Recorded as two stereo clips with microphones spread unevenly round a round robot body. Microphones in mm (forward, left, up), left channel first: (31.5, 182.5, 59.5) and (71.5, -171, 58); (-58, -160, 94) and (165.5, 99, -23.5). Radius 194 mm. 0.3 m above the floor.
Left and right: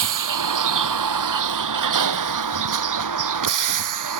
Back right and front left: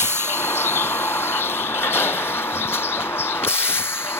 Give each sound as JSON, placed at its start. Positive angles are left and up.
{"t": 0.0, "sound": "a vehicle", "azimuth_deg": -50}